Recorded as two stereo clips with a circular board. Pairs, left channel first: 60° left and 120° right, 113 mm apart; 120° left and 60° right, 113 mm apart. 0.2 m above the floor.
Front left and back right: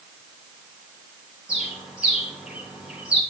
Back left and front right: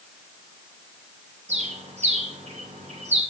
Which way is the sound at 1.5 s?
40° right.